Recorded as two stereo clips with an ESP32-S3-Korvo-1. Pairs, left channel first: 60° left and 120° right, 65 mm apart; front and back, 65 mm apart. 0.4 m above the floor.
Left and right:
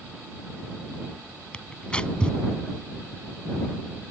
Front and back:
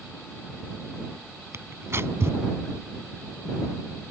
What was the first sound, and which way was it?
Tearing paper, 135° left.